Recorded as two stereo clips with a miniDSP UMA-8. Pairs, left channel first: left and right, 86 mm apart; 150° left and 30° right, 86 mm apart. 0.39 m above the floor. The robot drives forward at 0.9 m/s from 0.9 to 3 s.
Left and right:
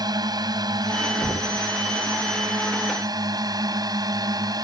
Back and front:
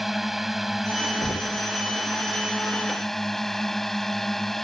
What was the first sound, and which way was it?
A drone, 120° right.